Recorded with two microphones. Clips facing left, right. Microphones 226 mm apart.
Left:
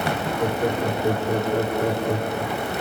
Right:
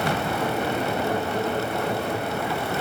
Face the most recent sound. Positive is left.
turn(degrees=45)  # may be behind; listen again after turning